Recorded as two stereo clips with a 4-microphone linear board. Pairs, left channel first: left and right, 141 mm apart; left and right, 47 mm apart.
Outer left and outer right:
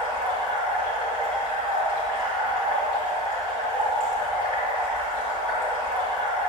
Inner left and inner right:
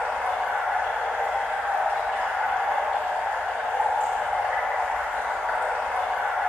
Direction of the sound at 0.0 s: 40° right (ahead or behind).